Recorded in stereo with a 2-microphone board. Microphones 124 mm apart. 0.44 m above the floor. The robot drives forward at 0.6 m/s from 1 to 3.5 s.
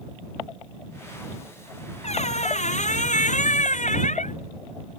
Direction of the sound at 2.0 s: 65° left (ahead or behind).